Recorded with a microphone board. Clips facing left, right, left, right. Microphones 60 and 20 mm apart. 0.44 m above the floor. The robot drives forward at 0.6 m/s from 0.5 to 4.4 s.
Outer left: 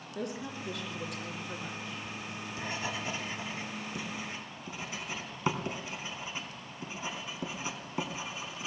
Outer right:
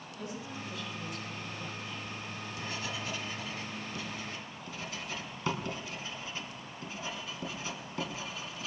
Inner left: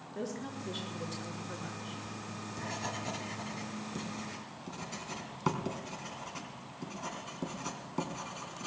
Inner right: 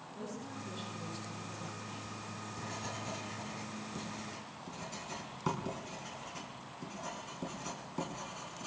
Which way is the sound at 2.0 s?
35° left (ahead or behind).